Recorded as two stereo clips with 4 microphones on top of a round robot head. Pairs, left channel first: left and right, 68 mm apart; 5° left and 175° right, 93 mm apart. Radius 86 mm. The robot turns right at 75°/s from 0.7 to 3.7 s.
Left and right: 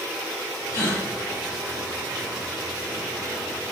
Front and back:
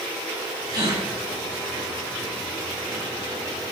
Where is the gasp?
125° left, 1.0 m; by 1.0 s 150° left, 1.0 m.